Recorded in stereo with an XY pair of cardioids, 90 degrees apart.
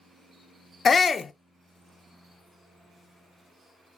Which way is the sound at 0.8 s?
40° left.